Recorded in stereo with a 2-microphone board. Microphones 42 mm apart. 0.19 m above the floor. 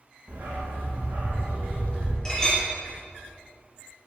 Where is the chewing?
No chewing in this recording.